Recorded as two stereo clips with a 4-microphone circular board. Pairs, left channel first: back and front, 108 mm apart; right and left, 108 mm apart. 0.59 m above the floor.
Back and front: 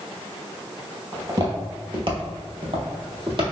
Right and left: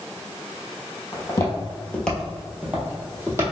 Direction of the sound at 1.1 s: 45° right.